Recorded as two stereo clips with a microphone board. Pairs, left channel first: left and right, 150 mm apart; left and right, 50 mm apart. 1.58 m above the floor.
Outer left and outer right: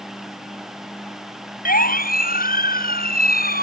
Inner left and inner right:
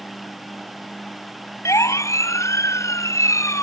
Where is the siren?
75° left (ahead or behind); by 3.6 s 80° left.